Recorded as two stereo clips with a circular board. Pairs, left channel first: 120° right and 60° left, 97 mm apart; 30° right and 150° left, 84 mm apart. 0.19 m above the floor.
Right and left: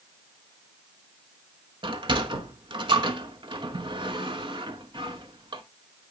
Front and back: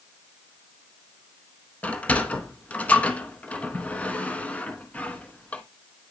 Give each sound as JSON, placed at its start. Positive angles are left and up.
{"t": 1.8, "sound": "a sliding door", "azimuth_deg": 40, "distance_m": 0.7}